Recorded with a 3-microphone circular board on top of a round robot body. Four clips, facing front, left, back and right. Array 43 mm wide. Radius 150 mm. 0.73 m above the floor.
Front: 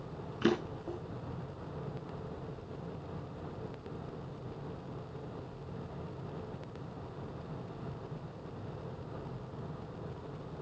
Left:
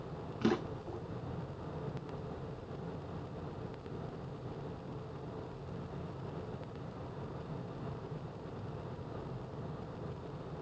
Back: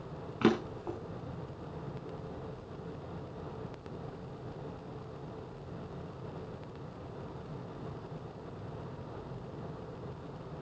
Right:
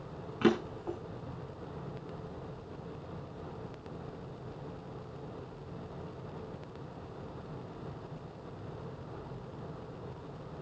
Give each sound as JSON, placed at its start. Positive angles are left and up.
{"t": 0.4, "sound": "a drawer", "azimuth_deg": -160, "distance_m": 5.5}